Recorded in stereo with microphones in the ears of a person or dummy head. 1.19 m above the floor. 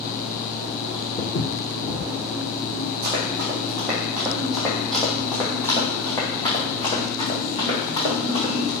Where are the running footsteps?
20° right (ahead or behind), 1.9 m; by 8.7 s 35° left (ahead or behind), 3.5 m.